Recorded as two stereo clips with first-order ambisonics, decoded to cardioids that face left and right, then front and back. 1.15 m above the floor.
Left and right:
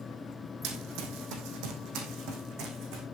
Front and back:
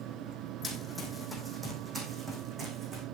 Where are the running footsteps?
80° right, 3 m; by 3.0 s 120° right, 4.5 m.